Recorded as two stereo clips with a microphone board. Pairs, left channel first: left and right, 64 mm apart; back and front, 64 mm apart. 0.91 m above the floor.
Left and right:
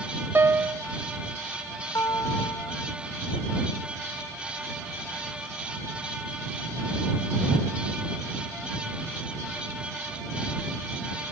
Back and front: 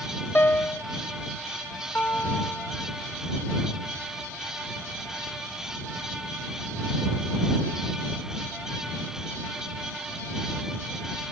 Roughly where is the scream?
No scream in this recording.